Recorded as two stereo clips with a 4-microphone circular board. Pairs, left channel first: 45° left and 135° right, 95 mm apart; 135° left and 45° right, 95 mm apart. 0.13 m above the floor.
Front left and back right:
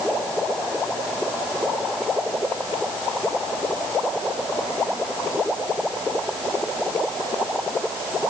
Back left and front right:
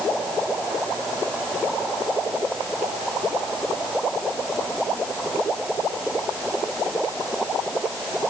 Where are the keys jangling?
No keys jangling in this recording.